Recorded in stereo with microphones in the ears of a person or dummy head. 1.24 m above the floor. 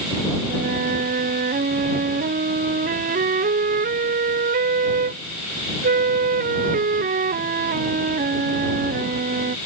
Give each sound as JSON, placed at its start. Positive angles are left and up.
{"t": 0.5, "sound": "a flute", "side_deg": -40}